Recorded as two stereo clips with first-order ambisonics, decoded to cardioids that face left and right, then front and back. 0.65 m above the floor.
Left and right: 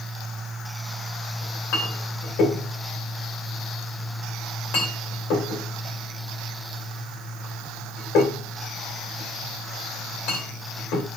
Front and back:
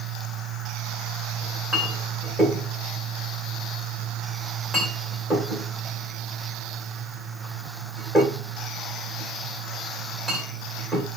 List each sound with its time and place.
1.4 s a clink: 85° left, 1.9 m